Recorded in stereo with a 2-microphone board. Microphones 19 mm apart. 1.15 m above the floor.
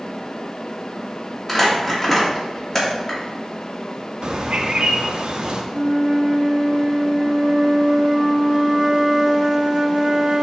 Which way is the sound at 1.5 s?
15° left (ahead or behind).